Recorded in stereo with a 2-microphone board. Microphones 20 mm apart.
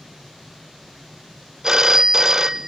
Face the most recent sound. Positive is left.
turn(degrees=-30)  # may be behind; listen again after turning